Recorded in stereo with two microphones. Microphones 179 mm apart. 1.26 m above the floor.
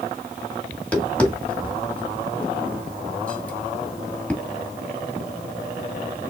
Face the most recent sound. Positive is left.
turn(degrees=5)  # may be behind; listen again after turning